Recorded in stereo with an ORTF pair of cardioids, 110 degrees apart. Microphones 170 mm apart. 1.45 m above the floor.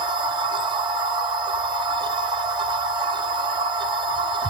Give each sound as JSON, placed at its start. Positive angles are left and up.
{"t": 0.0, "sound": "a machine running", "azimuth_deg": -30, "distance_m": 0.7}